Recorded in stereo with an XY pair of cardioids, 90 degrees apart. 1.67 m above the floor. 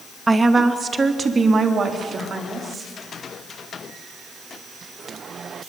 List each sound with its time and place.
0.3 s a woman speaking: 30° right, 1.8 m; by 2.9 s 45° right, 4.5 m